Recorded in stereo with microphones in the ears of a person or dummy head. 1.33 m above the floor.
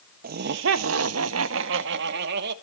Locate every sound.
0.2 s laughter: 45° right (ahead or behind), 0.6 m; by 2.5 s 60° right (ahead or behind), 1.4 m